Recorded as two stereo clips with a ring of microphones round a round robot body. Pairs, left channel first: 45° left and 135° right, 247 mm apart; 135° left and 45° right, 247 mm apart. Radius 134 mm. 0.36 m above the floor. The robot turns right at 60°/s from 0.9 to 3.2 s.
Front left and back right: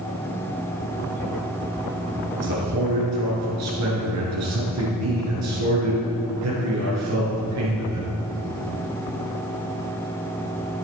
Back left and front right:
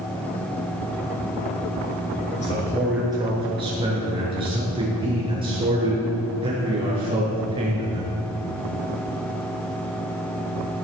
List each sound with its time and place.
2.4 s a man speaking: 165° right, 6 m; by 8.1 s 115° right, 6 m